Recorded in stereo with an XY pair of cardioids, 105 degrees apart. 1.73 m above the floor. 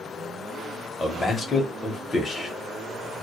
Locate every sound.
1.0 s a man speaking: 25° left, 0.7 m